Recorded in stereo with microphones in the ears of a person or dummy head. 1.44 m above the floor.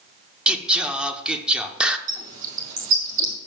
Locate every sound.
0.5 s singing: 5° right (ahead or behind), 0.6 m
2.1 s a bird: 45° right (ahead or behind), 2.0 m